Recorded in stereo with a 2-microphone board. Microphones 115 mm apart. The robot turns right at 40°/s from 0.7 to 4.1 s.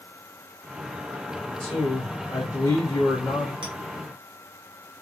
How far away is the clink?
About 1.0 m.